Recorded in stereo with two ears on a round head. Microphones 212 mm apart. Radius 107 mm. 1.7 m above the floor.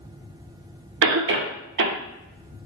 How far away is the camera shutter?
I don't hear a camera shutter.